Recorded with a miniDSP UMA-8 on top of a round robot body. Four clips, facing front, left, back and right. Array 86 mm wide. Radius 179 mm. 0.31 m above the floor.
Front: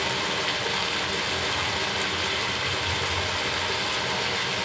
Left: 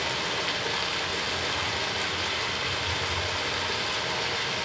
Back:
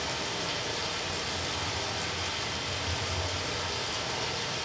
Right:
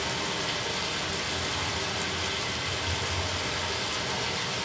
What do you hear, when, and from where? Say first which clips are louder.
0.0 s running water: left 1 dB, front 6 dB; 25° left, 1.5 m